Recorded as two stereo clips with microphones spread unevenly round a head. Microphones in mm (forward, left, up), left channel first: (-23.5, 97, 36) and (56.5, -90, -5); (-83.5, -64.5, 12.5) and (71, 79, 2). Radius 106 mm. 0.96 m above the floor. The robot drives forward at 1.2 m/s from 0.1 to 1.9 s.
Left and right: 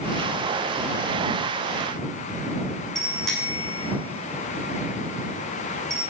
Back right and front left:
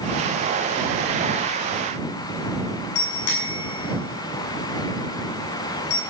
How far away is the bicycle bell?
About 6.5 m.